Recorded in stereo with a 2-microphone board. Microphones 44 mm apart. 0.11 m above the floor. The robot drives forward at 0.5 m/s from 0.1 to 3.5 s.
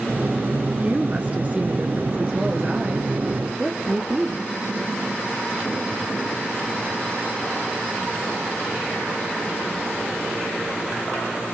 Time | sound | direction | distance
0.8 | a woman speaking | 30° right (ahead or behind) | 1.6 m